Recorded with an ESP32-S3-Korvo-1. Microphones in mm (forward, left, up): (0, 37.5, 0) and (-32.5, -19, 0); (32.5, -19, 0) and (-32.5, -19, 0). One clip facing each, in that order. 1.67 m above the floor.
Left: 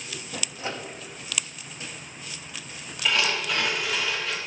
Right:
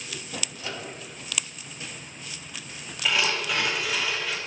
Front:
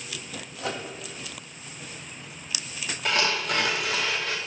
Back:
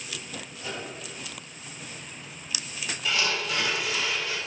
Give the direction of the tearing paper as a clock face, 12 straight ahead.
1 o'clock.